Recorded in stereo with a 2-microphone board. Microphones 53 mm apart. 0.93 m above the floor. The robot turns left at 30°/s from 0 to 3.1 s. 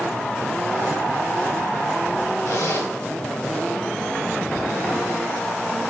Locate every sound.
2.5 s a zipper: 75° left (ahead or behind), 1.6 m; by 2.9 s 60° left (ahead or behind), 1.6 m